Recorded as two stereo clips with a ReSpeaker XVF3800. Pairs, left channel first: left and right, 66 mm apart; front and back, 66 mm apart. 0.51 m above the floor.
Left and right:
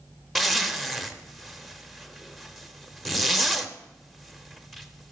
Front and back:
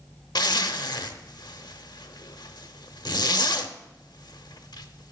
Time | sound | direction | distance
0.3 | a zipper | straight ahead | 0.7 m